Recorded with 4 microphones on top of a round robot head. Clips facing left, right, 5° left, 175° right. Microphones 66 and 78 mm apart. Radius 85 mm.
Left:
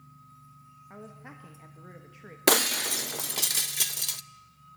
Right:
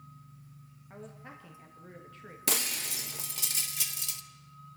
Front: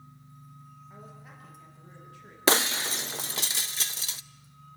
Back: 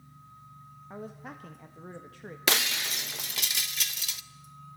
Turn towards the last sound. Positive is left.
turn(degrees=60)